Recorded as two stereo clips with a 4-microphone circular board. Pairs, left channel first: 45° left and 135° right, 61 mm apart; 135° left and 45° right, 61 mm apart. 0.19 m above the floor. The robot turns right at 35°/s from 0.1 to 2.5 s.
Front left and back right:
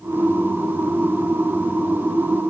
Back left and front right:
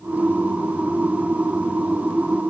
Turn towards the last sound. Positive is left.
No sound to turn to.